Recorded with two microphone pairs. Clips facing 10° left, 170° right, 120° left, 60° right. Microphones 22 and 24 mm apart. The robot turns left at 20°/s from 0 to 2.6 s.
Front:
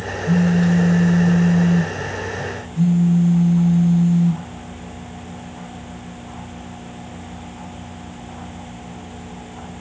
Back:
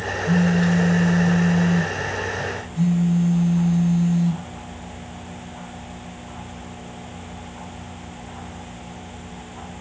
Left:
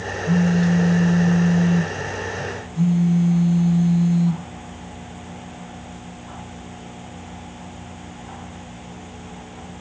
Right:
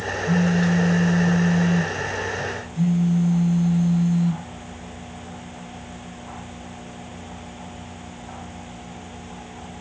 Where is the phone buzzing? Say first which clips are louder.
Front 2 dB, left 2 dB; 160° right, 0.5 m; by 4.4 s 155° left, 0.5 m.